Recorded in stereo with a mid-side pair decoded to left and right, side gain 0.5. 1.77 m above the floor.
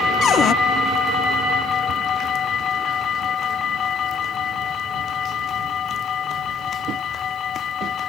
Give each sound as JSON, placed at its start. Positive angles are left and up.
{"t": 0.2, "sound": "a cupboard door", "azimuth_deg": 55}